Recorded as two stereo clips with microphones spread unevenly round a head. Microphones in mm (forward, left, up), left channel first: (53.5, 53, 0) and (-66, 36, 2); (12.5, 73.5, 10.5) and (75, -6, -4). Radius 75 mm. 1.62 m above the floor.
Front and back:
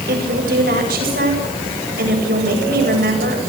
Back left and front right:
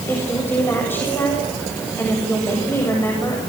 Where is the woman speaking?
155° right, 8 m.